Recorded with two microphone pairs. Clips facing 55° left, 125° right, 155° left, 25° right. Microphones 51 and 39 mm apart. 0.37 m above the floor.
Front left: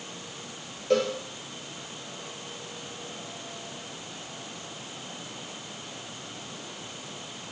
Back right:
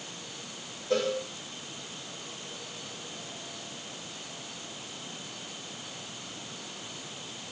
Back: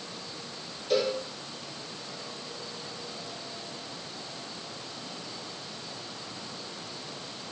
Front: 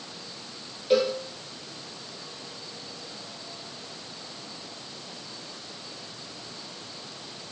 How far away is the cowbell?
About 3 m.